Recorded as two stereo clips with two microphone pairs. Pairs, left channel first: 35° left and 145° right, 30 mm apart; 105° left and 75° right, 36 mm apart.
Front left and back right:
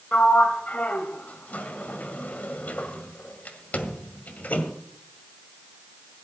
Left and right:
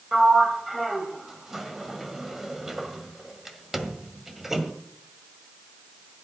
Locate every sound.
0.1 s a sliding door: 10° left, 1.7 m